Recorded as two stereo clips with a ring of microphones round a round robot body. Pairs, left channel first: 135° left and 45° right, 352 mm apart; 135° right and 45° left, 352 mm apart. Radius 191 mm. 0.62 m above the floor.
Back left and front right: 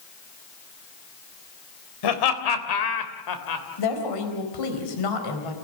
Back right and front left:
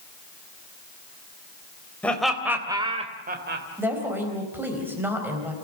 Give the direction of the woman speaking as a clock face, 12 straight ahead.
8 o'clock.